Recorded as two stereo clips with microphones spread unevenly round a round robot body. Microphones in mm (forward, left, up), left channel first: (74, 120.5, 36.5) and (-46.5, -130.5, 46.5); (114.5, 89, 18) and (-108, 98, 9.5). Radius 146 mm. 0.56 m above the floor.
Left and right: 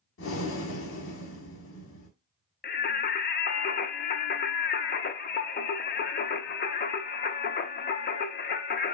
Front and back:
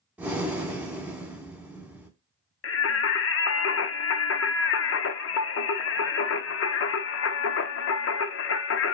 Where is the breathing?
95° left, 1.2 m.